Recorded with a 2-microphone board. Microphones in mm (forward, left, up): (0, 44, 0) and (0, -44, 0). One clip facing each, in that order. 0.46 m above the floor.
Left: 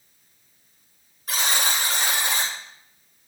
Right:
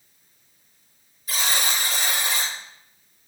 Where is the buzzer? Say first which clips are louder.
Left 1 dB; 60° left (ahead or behind), 2.5 m.